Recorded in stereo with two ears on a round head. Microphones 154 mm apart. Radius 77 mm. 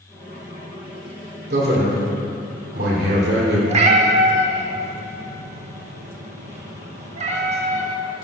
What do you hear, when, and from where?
1.5 s a man speaking: 60° right (ahead or behind), 2.5 m
3.7 s a cat meowing: 40° right (ahead or behind), 0.9 m